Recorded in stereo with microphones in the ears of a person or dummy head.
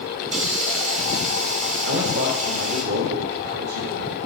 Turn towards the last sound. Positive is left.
turn(degrees=-65)  # may be behind; listen again after turning